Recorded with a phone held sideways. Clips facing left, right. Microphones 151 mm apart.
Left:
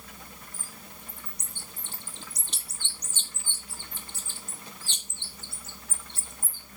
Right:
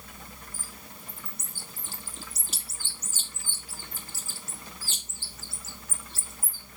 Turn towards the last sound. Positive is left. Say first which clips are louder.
# right 1 dB
turn(degrees=-5)  # may be behind; listen again after turning